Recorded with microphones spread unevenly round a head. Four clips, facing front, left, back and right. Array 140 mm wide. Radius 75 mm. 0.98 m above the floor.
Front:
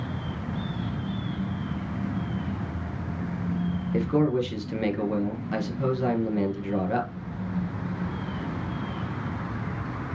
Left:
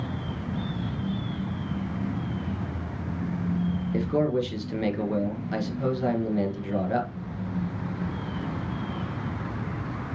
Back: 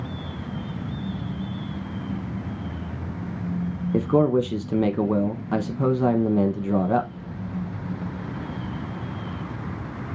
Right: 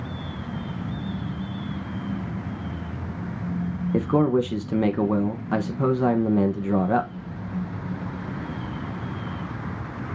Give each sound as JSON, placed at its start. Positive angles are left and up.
{"t": 3.9, "sound": "a man speaking", "azimuth_deg": -140, "distance_m": 1.1}